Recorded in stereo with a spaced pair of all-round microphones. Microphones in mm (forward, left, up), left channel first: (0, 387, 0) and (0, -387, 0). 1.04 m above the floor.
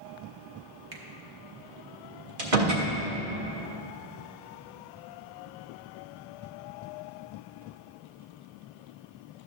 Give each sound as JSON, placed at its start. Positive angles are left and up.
{"t": 0.9, "sound": "a finger snap", "side_deg": -70, "distance_m": 1.2}
{"t": 2.4, "sound": "a door slam", "side_deg": -75, "distance_m": 1.6}